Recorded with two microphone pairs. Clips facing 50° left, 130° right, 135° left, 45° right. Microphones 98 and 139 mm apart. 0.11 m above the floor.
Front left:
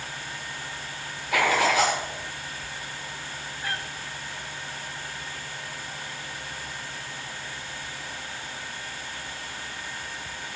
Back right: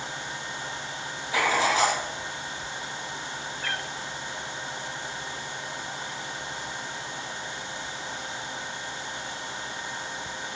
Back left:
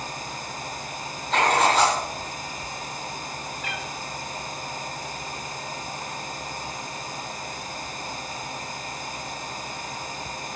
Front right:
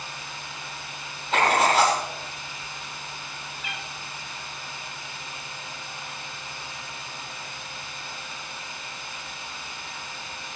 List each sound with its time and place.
1.3 s writing: 40° left, 8.5 m
3.6 s a cat meowing: 125° left, 3 m